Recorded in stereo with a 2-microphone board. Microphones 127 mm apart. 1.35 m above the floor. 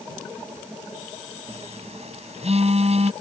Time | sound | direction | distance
1.5 | a phone buzzing | 50° right (ahead or behind) | ?